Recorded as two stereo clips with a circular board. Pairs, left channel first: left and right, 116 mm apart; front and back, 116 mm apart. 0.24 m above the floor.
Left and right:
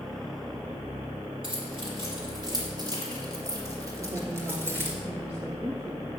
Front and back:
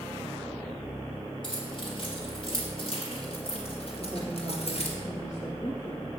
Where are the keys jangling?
45° right, 4 m; by 5.0 s 20° right, 2.5 m.